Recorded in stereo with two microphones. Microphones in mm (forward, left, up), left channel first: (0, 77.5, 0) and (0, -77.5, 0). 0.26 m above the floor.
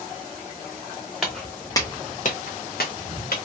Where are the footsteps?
Centre (ahead or behind), 1.1 m; by 3.4 s 75° left (ahead or behind), 1.5 m.